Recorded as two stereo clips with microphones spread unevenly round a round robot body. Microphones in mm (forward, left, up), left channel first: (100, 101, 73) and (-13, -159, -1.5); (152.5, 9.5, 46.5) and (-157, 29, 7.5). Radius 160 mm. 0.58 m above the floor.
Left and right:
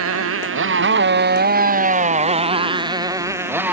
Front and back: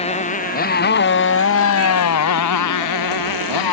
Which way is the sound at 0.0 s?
75° right.